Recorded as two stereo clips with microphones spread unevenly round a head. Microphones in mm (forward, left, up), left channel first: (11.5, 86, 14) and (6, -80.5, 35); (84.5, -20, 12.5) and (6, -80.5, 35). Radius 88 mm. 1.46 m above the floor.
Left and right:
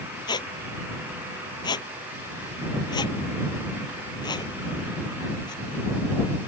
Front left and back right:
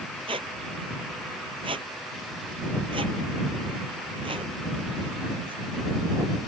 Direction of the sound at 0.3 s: 155° left.